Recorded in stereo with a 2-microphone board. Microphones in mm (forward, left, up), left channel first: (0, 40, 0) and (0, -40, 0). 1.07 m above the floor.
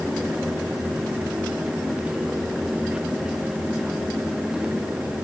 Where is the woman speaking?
I don't hear a woman speaking.